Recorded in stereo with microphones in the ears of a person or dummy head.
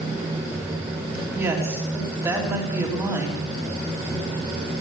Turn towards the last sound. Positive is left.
turn(degrees=-15)  # may be behind; listen again after turning